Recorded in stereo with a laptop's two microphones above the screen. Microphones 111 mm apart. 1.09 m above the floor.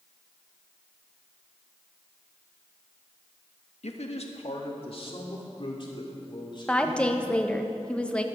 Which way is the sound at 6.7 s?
10° left (ahead or behind).